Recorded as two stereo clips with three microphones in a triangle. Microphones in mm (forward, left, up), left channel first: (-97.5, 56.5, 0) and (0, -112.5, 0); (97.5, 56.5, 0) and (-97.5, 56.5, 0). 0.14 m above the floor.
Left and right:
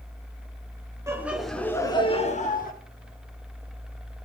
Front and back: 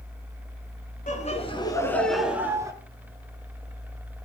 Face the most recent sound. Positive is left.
turn(degrees=115)